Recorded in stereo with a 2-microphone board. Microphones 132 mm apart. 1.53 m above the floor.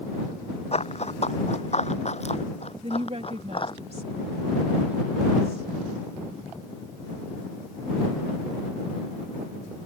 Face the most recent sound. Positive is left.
turn(degrees=-50)  # may be behind; listen again after turning